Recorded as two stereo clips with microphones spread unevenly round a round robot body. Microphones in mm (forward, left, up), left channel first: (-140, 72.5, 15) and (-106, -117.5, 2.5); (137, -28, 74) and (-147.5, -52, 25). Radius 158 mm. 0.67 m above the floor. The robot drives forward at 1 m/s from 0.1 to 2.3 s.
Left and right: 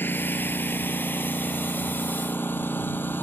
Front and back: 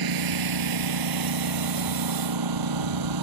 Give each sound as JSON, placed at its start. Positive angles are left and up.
{"t": 0.0, "sound": "a lawn mower", "azimuth_deg": 180}